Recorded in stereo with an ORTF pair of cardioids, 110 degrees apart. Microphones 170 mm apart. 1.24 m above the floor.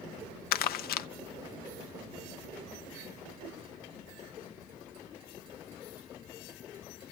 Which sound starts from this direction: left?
Crumpling, at 0.5 s.